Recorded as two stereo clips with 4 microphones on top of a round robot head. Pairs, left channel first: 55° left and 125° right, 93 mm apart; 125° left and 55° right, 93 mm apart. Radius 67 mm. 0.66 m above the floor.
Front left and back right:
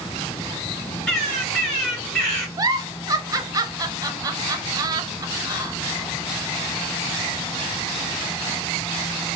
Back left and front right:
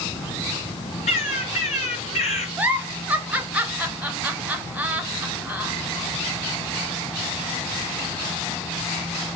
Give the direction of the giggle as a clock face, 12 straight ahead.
4 o'clock.